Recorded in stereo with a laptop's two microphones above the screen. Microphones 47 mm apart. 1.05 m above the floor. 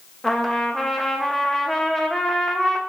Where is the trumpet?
10° left (ahead or behind), 0.5 m.